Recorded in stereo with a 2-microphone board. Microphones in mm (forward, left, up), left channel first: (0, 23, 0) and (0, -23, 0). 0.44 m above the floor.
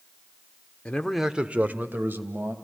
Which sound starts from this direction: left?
A man speaking, at 0.8 s.